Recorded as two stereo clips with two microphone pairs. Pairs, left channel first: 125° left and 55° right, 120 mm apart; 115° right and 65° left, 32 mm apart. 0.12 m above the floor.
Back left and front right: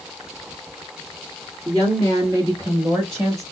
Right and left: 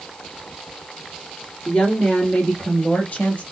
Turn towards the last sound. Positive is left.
turn(degrees=-115)